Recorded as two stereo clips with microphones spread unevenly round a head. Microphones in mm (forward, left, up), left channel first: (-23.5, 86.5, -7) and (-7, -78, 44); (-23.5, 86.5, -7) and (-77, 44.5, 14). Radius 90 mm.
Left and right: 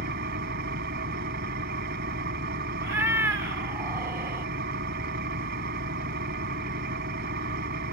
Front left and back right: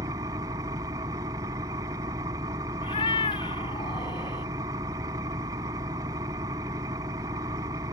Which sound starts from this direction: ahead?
A cat meowing, at 2.8 s.